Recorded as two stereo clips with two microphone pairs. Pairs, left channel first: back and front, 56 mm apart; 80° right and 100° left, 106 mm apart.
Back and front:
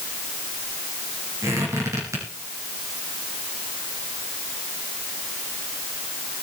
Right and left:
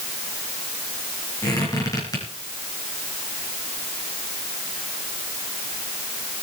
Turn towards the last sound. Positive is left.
turn(degrees=-30)